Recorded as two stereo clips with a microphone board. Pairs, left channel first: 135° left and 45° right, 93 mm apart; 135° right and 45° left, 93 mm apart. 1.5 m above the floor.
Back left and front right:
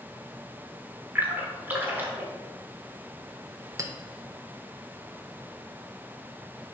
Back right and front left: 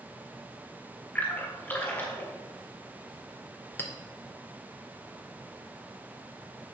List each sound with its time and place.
1.1 s a splash: 90° right, 1.2 m
3.8 s a clink: 80° right, 0.8 m